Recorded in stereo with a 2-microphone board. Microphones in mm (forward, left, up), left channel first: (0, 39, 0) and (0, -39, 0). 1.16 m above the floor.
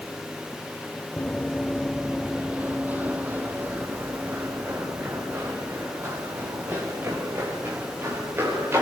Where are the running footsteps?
15° left (ahead or behind), 1.2 m; by 8.8 s 30° right (ahead or behind), 8 m.